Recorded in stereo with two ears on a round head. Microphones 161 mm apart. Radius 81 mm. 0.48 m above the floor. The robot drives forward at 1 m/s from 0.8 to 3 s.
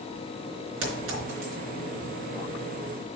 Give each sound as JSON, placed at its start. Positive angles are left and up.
{"t": 0.8, "sound": "a clink", "side_deg": -80, "distance_m": 4.0}